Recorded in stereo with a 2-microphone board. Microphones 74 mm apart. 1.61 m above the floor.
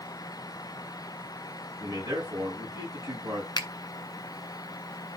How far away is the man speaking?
About 8 m.